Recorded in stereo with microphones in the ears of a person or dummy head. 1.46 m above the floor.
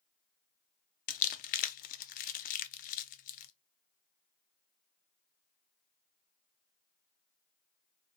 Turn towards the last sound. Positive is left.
turn(degrees=45)  # may be behind; listen again after turning